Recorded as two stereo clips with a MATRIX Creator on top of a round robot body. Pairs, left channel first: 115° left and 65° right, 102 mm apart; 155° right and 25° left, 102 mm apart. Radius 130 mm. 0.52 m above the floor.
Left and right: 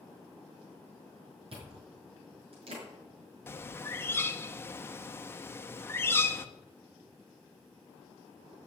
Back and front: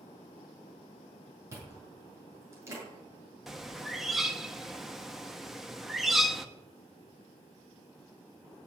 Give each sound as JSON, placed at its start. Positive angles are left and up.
{"t": 1.5, "sound": "chewing", "azimuth_deg": -40, "distance_m": 7.5}
{"t": 3.5, "sound": "a bird", "azimuth_deg": 105, "distance_m": 1.3}